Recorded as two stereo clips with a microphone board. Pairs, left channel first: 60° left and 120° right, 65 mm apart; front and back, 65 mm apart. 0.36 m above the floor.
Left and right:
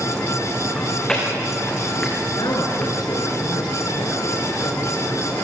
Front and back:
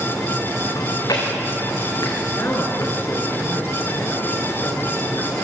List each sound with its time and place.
0.8 s chewing: 20° right, 6 m
2.4 s a woman speaking: 55° left, 4.5 m